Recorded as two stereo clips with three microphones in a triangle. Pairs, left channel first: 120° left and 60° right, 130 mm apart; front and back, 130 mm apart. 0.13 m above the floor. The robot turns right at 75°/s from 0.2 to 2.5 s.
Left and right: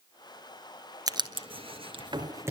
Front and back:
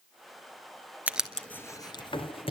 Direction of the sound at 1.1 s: 105° right.